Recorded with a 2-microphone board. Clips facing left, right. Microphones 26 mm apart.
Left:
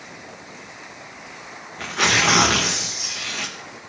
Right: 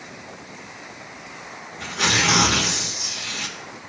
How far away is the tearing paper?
About 2.5 m.